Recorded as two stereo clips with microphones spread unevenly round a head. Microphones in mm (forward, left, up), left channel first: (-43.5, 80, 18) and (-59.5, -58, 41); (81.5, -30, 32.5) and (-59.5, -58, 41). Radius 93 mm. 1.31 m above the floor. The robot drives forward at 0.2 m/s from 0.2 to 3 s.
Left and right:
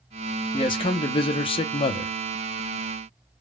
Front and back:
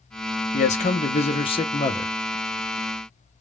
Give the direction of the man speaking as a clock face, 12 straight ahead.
11 o'clock.